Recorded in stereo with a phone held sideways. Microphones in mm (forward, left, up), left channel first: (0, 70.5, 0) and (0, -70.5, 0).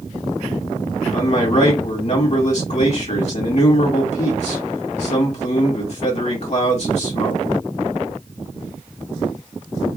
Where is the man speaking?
55° left (ahead or behind), 2.0 m.